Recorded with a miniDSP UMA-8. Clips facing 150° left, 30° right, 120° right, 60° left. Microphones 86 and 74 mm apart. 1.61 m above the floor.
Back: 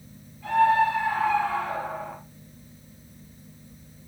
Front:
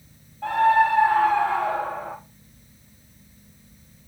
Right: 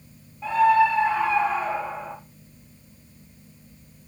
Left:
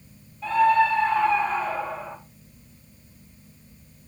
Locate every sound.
0.4 s a scream: 50° right, 3 m; by 2.2 s 55° right, 1.8 m